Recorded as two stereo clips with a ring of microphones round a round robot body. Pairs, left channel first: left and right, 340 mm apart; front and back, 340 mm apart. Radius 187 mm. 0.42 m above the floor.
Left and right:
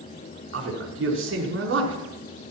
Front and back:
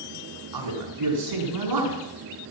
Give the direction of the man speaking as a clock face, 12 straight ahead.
5 o'clock.